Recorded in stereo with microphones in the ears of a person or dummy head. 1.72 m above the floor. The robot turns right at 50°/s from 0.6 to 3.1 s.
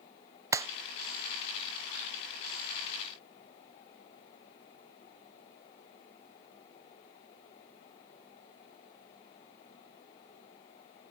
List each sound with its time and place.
0.5 s a clap: 15° right (ahead or behind)